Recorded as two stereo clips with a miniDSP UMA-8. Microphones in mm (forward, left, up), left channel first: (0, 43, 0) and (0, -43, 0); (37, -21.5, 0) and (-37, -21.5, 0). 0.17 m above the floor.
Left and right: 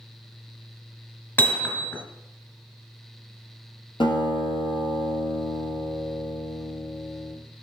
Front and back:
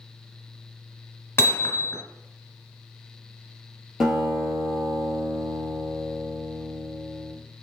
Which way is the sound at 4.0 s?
95° left.